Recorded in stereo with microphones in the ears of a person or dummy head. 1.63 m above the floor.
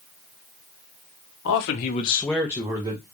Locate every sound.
1.4 s a man speaking: 60° left (ahead or behind), 1.0 m; by 3.0 s 30° right (ahead or behind), 1.3 m